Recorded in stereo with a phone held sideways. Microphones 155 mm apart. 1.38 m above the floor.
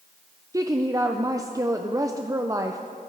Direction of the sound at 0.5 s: 20° right (ahead or behind).